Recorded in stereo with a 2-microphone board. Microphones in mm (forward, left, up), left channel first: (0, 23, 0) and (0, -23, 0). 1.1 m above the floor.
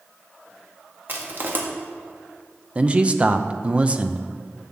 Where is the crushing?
45° right (ahead or behind), 1.7 m.